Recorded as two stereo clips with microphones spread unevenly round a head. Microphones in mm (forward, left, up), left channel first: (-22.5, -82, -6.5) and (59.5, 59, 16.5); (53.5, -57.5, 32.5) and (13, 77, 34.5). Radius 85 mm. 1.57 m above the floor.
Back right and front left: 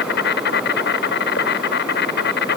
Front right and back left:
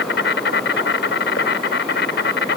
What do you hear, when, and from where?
0.0 s an insect: 100° right